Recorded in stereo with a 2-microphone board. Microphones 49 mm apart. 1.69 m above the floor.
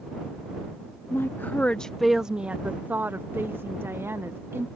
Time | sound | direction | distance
1.1 | a woman speaking | 55° left (ahead or behind) | ?